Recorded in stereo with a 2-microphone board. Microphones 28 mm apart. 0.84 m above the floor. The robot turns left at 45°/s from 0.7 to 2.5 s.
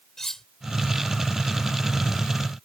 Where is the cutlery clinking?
15° left (ahead or behind).